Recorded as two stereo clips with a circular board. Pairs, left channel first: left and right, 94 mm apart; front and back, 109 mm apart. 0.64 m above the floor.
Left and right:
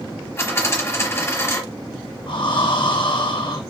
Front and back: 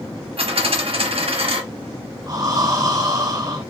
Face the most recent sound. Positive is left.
turn(degrees=125)